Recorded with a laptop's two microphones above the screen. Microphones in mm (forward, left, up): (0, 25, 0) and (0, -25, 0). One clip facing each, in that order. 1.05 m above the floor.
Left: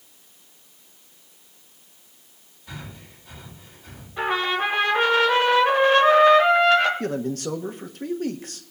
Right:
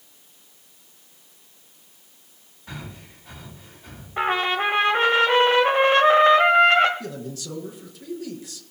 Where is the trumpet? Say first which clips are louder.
Right 1 dB; 40° right (ahead or behind), 1.8 m.